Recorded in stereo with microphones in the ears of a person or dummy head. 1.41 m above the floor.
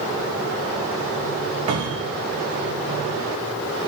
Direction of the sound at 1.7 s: 35° right (ahead or behind).